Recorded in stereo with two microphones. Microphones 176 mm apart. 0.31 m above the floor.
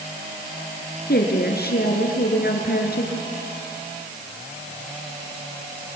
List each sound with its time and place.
1.1 s a woman speaking: 65° left (ahead or behind), 4 m